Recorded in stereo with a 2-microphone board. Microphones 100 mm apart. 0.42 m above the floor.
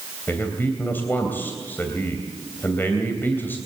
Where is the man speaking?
20° left (ahead or behind), 2.5 m.